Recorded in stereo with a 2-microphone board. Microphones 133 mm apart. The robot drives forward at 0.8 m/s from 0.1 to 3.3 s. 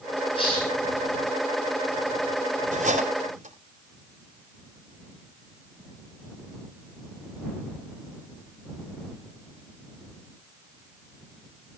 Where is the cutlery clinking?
75° right (ahead or behind), 3 m; by 3.5 s 65° right (ahead or behind), 3.5 m.